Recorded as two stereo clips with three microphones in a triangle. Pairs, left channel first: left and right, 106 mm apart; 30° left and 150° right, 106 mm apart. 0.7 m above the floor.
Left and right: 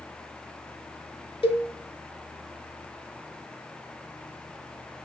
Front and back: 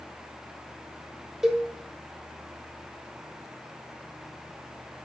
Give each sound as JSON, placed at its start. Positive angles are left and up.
{"t": 1.4, "sound": "a cowbell", "azimuth_deg": 125, "distance_m": 1.0}